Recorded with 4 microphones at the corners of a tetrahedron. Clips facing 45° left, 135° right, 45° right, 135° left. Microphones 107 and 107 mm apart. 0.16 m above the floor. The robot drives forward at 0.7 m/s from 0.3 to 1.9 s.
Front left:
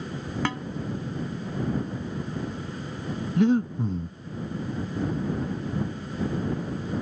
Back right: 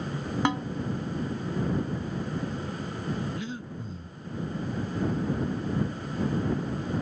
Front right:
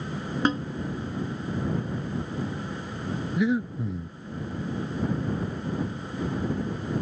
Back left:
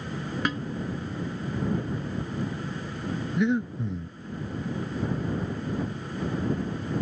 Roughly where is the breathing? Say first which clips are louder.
Front left 15 dB, even; ahead left.